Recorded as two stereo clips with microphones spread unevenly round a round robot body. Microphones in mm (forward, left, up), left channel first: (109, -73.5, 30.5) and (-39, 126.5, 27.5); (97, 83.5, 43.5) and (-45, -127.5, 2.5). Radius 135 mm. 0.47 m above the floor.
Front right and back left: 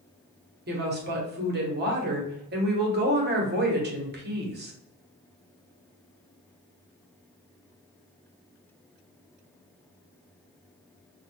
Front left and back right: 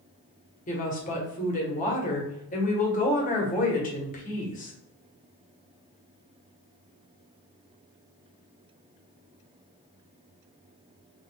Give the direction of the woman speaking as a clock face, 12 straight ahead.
8 o'clock.